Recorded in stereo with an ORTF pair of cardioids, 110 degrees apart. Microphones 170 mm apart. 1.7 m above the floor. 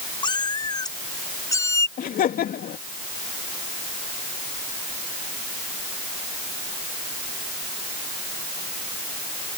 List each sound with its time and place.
0.2 s a cat meowing: 25° left; by 1.9 s 15° left
2.0 s laughter: 55° left